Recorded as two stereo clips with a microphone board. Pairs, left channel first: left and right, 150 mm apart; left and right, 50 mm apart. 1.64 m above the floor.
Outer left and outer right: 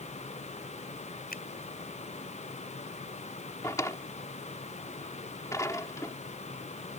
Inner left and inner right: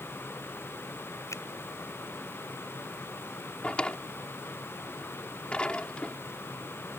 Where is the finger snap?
80° left.